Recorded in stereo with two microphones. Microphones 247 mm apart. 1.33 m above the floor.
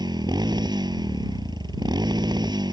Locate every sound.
0.0 s a motorcycle: 20° right (ahead or behind)